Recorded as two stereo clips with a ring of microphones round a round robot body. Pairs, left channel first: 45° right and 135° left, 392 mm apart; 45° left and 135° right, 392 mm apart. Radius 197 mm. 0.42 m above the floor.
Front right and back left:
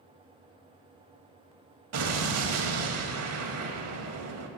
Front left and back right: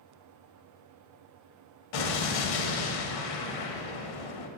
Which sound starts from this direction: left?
An explosion, at 1.9 s.